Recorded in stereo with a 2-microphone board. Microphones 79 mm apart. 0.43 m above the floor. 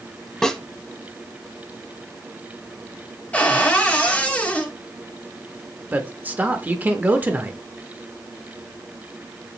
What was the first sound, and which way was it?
A snare drum, 10° left (ahead or behind).